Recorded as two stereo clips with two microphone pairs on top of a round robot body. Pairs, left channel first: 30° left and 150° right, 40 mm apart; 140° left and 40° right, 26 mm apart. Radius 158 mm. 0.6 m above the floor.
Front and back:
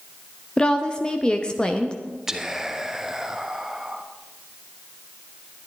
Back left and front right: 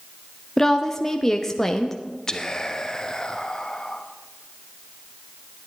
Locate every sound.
0.6 s a woman speaking: 95° left, 1.0 m
2.3 s whispering: 150° left, 1.3 m